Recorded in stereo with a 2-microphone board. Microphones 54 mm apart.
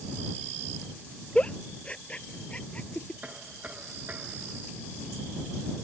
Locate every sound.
1.4 s a giggle: 20° left (ahead or behind)
3.2 s knocking: 30° right (ahead or behind)